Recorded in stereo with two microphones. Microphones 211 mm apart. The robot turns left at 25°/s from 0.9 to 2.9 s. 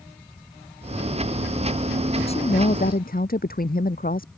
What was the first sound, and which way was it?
A woman speaking, 25° left (ahead or behind).